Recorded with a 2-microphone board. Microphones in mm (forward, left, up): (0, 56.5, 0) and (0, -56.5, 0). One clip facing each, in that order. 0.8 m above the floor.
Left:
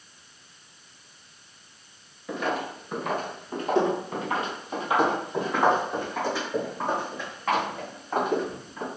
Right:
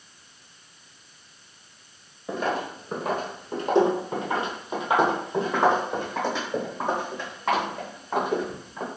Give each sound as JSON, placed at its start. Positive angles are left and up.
{"t": 2.3, "sound": "footsteps", "side_deg": -30, "distance_m": 0.8}